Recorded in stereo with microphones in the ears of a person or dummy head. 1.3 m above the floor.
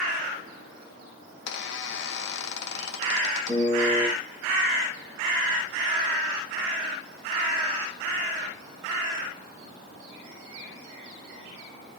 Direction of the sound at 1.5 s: 70° left (ahead or behind).